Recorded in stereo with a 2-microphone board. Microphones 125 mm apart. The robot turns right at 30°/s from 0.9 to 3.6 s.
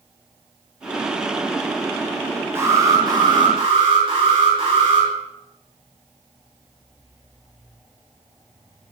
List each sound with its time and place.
2.5 s an alarm: 160° right, 5 m; by 5.1 s 130° right, 5 m